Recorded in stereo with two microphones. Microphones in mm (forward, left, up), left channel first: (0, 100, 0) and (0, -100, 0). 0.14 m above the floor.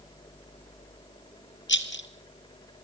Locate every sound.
1.7 s a rattle: 70° left (ahead or behind), 1.4 m